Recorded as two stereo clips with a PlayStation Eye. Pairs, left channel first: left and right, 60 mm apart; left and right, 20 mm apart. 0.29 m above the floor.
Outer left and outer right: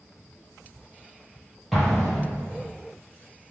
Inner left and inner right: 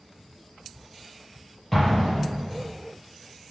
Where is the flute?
I don't hear a flute.